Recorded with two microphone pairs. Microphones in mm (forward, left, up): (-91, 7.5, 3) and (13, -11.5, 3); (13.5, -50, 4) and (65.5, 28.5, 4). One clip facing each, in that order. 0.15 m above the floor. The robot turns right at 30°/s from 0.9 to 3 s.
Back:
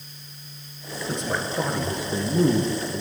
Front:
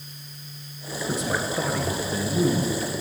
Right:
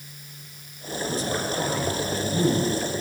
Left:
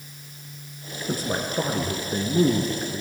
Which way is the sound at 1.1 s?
70° left.